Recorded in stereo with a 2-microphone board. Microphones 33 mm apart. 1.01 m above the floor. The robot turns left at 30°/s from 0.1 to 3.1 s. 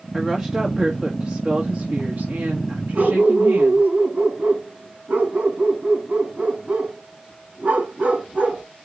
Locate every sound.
0.1 s a woman speaking: 15° left, 1.9 m; by 3.9 s 75° right, 1.9 m
3.0 s a dog barking: 45° right (ahead or behind), 5 m; by 8.7 s 50° right (ahead or behind), 5 m